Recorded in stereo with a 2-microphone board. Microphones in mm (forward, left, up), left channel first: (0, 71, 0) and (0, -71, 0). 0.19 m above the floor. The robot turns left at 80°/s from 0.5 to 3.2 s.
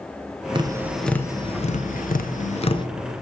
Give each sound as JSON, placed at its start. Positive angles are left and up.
{"t": 0.6, "sound": "tapping", "side_deg": -35, "distance_m": 0.7}